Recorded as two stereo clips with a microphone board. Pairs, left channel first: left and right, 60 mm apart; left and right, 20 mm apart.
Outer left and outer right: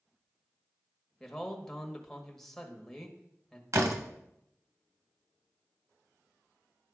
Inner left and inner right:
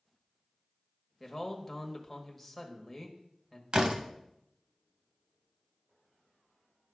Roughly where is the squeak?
I don't hear a squeak.